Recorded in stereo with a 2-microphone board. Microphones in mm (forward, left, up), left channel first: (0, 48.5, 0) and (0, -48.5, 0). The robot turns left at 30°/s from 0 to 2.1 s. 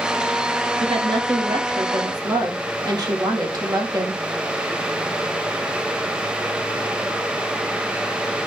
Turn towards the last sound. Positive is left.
turn(degrees=-140)